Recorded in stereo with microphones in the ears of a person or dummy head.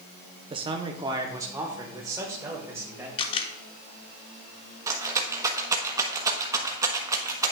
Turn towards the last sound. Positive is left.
turn(degrees=-20)  # may be behind; listen again after turning